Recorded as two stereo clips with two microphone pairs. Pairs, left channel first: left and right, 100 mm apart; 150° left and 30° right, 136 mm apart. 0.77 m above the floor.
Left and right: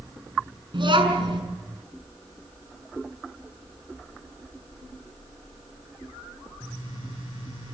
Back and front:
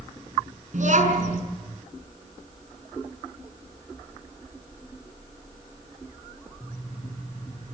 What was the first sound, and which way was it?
A child speaking, 55° right.